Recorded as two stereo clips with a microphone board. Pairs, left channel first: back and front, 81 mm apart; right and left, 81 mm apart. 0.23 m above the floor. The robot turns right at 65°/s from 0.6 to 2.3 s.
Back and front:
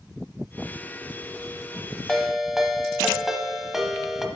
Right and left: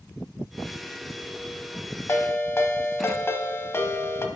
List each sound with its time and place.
2.1 s a ringtone: 95° right, 0.7 m; by 4.2 s 80° right, 0.7 m